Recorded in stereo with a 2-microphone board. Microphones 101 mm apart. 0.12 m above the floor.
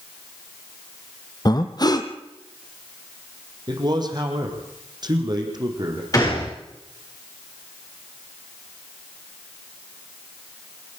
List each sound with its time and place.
1.4 s breathing: 45° left (ahead or behind), 1.5 m
3.7 s a man speaking: 45° right (ahead or behind), 4.5 m
6.1 s a gunshot: 35° left (ahead or behind), 8 m